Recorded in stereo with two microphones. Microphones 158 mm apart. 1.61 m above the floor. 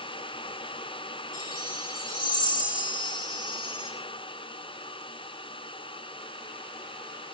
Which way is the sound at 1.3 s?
60° left (ahead or behind).